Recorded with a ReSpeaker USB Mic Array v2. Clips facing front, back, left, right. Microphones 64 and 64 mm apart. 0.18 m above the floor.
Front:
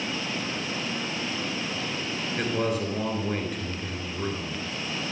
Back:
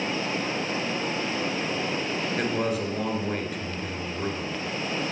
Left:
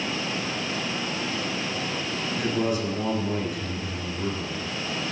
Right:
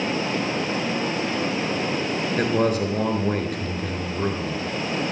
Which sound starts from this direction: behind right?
Running water, at 0.0 s.